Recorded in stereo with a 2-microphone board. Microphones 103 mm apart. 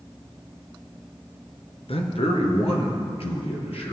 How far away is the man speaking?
About 2.5 m.